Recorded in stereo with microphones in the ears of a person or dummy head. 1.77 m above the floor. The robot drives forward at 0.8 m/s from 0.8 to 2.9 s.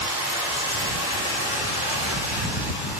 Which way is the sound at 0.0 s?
25° right (ahead or behind).